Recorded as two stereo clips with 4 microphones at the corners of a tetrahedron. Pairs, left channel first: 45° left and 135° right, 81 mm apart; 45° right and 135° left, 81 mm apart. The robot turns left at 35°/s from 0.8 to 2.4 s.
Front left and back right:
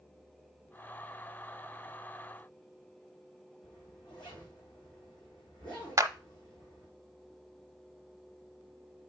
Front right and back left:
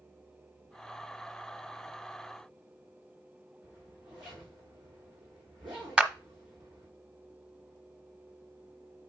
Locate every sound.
3.6 s a zipper: 60° left, 5.5 m
6.0 s a clap: 150° right, 0.9 m